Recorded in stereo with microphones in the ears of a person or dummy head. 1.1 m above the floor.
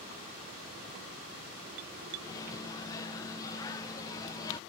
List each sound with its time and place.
2.2 s a microwave: 20° left (ahead or behind)